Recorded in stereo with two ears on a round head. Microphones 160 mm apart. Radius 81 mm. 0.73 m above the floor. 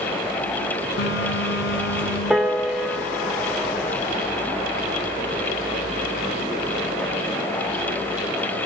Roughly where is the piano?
Centre.